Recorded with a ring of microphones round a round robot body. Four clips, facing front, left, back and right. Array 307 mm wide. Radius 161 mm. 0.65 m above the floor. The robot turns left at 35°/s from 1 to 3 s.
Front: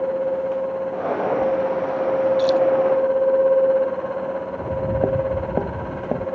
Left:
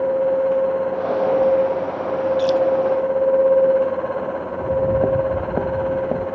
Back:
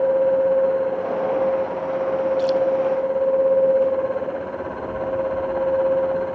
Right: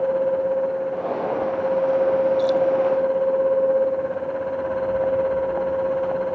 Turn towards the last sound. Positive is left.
turn(degrees=40)